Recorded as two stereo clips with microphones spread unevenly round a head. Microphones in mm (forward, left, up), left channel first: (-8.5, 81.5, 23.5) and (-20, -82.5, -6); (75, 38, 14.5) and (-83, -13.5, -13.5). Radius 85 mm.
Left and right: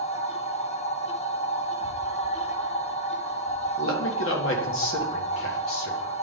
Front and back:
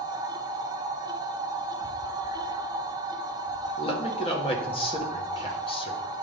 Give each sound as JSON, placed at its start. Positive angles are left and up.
{"t": 0.0, "sound": "a machine running", "azimuth_deg": 125, "distance_m": 0.7}
{"t": 3.8, "sound": "a man speaking", "azimuth_deg": 80, "distance_m": 1.4}